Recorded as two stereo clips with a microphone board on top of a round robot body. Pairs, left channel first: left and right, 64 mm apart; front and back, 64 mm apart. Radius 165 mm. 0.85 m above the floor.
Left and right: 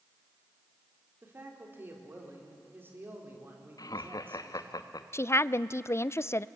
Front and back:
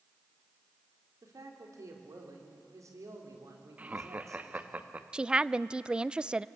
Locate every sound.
1.2 s a man speaking: 145° right, 3.5 m
3.8 s laughter: 110° left, 1.3 m
5.1 s a woman speaking: 110° left, 0.6 m